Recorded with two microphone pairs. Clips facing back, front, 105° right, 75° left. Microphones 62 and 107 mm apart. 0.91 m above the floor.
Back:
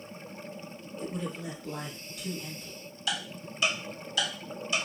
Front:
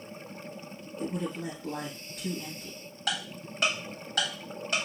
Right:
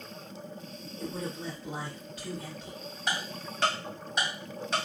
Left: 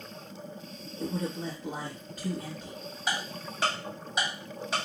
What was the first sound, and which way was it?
A man speaking, 35° left.